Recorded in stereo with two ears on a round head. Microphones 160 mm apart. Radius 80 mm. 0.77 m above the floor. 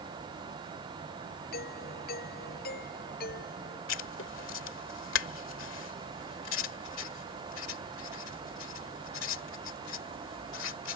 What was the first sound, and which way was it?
A doorbell, 60° left (ahead or behind).